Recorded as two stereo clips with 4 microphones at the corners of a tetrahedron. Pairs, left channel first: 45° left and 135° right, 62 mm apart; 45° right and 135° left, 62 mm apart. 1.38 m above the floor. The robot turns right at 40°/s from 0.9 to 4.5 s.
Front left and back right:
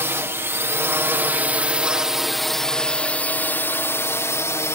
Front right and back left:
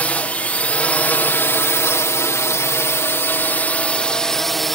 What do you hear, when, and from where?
0.0 s a drone: 105° right; by 4.8 s 40° left